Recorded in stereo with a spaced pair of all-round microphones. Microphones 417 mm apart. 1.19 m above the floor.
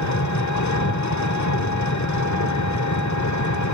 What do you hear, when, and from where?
0.0 s an engine running: 40° left (ahead or behind), 1.4 m